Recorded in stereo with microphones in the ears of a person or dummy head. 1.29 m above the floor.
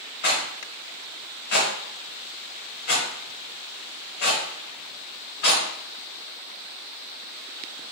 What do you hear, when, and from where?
0.2 s a rattle: 50° left (ahead or behind), 0.7 m